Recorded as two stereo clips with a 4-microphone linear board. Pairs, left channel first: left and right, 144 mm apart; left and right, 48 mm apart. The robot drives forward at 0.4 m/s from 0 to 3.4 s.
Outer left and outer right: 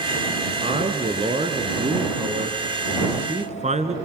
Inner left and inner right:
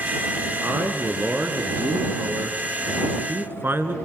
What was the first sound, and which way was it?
A man speaking, 40° right (ahead or behind).